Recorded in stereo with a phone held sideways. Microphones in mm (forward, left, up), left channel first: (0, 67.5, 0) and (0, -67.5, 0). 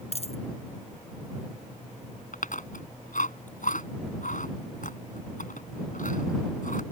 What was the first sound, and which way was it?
A dropped coin, 45° left (ahead or behind).